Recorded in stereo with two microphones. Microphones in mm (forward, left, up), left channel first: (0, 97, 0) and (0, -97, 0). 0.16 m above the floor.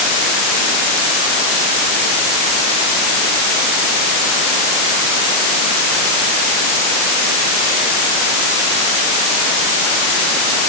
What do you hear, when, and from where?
Only background noise.